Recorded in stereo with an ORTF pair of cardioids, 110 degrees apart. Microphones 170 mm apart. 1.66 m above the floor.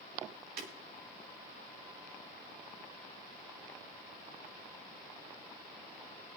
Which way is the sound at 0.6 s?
70° right.